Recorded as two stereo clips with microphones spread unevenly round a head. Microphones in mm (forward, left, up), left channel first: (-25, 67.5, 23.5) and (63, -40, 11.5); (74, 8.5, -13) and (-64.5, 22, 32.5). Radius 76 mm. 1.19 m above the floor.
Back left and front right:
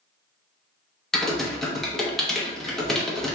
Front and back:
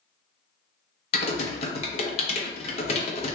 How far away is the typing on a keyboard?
About 0.7 m.